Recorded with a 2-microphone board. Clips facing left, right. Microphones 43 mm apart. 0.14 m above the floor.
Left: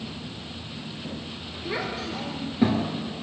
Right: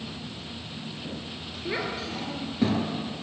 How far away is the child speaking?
About 1.7 m.